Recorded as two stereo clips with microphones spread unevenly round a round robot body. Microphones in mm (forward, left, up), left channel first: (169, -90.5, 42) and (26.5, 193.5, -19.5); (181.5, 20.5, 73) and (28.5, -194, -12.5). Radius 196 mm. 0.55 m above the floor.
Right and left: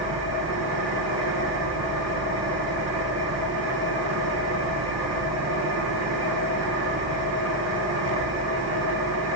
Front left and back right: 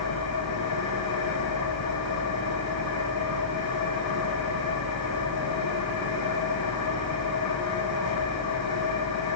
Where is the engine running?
75° left, 8 m.